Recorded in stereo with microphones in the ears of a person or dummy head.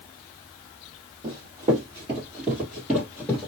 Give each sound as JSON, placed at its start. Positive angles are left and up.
{"t": 1.2, "sound": "running footsteps", "side_deg": -25, "distance_m": 1.8}